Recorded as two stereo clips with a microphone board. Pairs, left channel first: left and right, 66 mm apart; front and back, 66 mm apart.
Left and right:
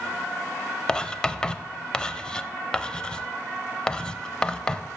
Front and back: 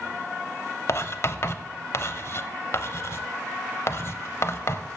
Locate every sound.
0.9 s writing: 15° left, 0.6 m